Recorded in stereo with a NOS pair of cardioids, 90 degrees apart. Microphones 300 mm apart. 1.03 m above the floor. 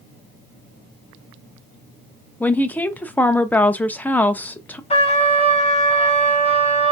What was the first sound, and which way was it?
A woman speaking, 5° left.